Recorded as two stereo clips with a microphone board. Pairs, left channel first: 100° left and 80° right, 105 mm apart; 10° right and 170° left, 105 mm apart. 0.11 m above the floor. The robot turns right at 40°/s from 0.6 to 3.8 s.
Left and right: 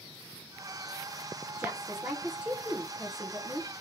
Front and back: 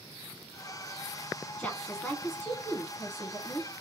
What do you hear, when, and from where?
1.6 s a woman speaking: 65° right, 1.1 m; by 3.7 s 20° left, 1.1 m